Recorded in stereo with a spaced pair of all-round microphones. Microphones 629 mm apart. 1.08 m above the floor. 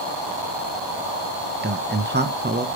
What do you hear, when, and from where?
1.6 s a man speaking: 15° right (ahead or behind), 0.9 m